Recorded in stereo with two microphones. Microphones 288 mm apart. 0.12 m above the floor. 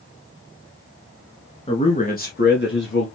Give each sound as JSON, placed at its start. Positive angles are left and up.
{"t": 1.7, "sound": "a man speaking", "side_deg": 20, "distance_m": 1.5}